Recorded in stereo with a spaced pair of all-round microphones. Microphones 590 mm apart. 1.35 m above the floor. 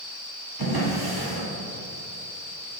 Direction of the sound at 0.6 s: 40° right (ahead or behind).